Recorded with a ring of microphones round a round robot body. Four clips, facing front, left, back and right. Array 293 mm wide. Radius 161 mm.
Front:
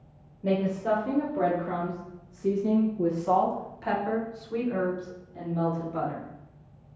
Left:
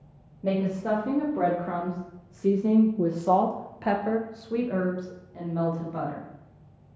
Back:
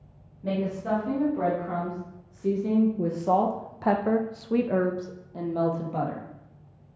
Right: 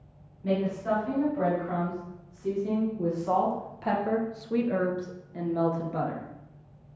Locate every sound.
0.4 s a woman speaking: 70° left, 2 m; by 6.3 s 150° right, 1.8 m